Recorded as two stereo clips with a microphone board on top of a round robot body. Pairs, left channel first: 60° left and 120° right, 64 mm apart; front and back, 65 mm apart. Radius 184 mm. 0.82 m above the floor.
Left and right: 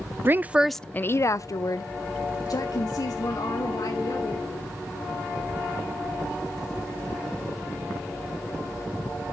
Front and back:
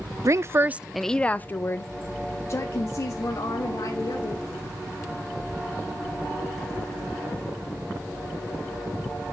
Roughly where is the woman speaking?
Behind.